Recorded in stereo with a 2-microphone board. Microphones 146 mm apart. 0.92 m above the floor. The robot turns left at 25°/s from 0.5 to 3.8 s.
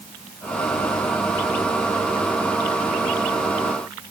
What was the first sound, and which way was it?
Only background noise.